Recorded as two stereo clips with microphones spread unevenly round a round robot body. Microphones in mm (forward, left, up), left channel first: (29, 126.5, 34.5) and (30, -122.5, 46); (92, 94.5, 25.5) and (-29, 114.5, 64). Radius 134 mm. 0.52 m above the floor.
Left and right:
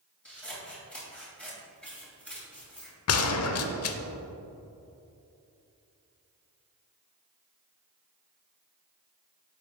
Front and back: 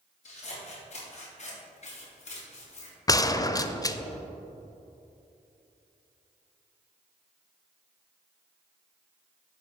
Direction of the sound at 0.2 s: 5° left.